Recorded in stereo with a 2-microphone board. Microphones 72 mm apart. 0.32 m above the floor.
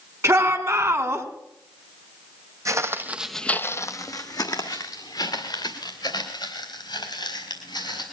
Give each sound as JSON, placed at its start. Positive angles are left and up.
{"t": 0.2, "sound": "a shout", "side_deg": -40, "distance_m": 2.5}
{"t": 2.6, "sound": "footsteps", "side_deg": -50, "distance_m": 1.0}